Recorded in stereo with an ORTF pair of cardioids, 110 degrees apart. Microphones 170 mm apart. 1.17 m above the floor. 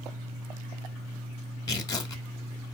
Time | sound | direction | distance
1.7 | tearing paper | 20° left | 1.0 m